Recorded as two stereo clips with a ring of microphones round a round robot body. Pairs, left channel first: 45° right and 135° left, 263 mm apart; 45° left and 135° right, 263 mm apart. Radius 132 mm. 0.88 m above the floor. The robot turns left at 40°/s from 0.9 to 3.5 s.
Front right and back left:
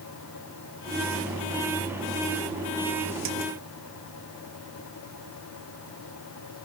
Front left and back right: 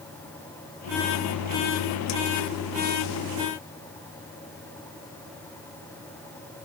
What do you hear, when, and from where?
Only background noise.